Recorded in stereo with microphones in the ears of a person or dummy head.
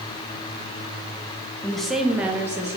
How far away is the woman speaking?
About 0.7 m.